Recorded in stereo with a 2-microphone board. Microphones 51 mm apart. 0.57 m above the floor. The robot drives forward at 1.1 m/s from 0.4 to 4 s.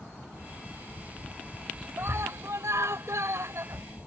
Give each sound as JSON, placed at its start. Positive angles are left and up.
{"t": 2.0, "sound": "a scream", "side_deg": -60}